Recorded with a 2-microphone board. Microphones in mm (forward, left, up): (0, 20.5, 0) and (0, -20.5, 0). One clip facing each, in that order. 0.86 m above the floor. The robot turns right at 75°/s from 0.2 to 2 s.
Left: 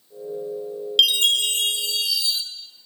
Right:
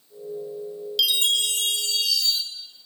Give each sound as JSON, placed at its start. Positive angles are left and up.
{"t": 1.0, "sound": "a chime", "azimuth_deg": 90, "distance_m": 0.5}